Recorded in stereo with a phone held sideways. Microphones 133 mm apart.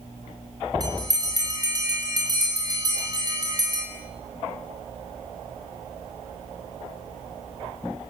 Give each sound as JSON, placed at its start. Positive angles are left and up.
{"t": 0.8, "sound": "a bell", "side_deg": -30, "distance_m": 8.5}